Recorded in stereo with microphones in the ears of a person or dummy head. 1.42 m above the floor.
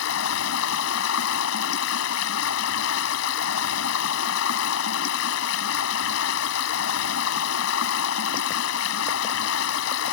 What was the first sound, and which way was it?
Running water, 70° left (ahead or behind).